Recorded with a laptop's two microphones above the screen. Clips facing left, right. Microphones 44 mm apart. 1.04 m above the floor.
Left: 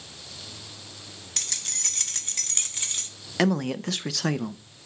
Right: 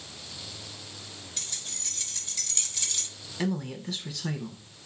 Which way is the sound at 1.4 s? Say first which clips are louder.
Left 7 dB; 80° left.